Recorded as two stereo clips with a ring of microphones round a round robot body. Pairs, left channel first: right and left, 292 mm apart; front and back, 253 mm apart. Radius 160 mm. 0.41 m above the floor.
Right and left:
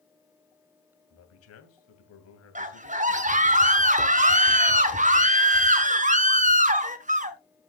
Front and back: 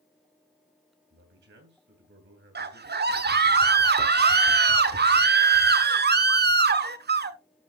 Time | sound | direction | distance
1.1 | a man speaking | 130° right | 3 m
2.5 | a scream | 145° left | 1.4 m